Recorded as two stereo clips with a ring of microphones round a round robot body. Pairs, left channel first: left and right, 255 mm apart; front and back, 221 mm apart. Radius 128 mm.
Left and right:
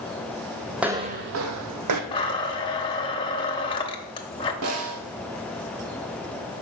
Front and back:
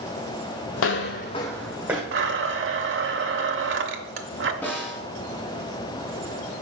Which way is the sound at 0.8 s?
Straight ahead.